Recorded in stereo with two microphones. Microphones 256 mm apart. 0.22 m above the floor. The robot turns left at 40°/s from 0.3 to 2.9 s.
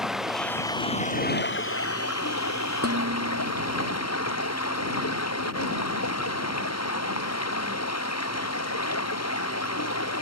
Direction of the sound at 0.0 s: Straight behind.